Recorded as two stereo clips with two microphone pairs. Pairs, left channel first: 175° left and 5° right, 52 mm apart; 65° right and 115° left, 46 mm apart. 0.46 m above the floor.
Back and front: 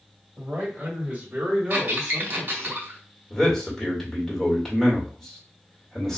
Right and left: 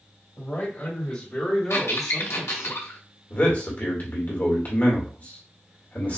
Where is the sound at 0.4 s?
40° right, 1.7 m; by 2.7 s 155° left, 1.3 m.